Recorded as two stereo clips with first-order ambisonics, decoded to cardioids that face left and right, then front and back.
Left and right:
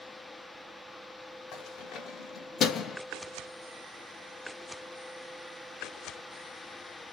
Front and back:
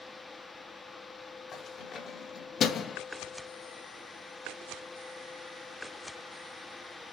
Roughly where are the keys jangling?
Ahead left.